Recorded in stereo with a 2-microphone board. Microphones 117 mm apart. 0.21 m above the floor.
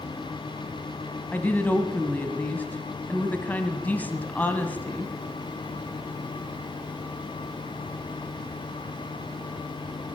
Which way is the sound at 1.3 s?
15° left (ahead or behind).